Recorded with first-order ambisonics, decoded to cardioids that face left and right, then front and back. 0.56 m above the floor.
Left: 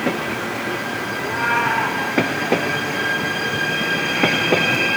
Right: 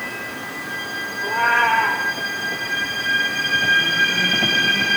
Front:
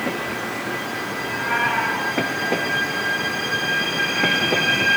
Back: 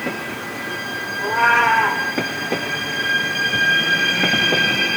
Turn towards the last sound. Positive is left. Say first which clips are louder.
# right 3 dB, back 8 dB
turn(degrees=165)